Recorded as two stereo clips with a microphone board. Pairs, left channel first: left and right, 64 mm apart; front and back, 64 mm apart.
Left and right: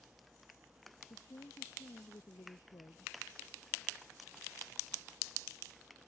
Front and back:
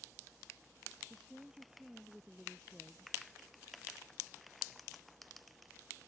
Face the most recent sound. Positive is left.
turn(degrees=100)